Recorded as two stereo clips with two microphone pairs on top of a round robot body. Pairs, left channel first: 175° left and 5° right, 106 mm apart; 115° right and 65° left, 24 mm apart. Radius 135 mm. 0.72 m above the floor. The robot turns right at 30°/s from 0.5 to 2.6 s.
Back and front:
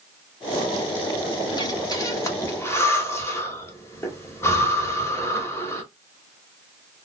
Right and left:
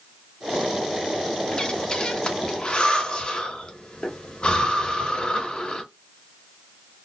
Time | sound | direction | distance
1.5 | breathing | 165° right | 1.2 m